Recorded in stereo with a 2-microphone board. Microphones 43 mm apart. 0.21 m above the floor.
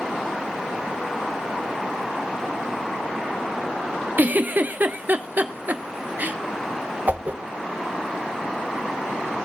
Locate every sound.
4.2 s a giggle: 45° right (ahead or behind), 0.8 m
7.1 s a whoosh: 45° right (ahead or behind), 0.9 m